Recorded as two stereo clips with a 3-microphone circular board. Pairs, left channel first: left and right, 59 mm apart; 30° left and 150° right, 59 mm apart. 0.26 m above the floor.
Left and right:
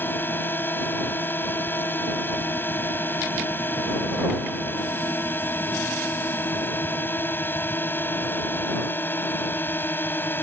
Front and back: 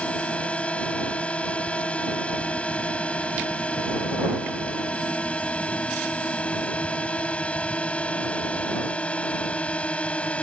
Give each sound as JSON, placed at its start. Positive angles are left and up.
{"t": 0.0, "sound": "a drone", "azimuth_deg": 80}